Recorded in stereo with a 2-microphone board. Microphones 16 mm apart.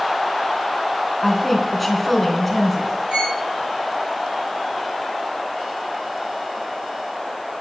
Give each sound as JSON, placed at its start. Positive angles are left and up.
{"t": 1.2, "sound": "a woman speaking", "side_deg": 0, "distance_m": 2.5}
{"t": 3.1, "sound": "a violin", "side_deg": -75, "distance_m": 3.0}